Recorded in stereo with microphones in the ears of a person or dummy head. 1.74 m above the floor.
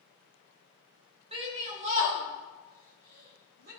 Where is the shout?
30° right (ahead or behind), 3 m; by 3.7 s 45° right (ahead or behind), 6.5 m.